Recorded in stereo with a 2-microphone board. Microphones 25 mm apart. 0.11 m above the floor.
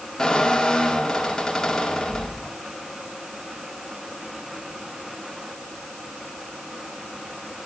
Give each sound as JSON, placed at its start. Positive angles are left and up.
{"t": 0.2, "sound": "a squeak", "side_deg": 20, "distance_m": 1.7}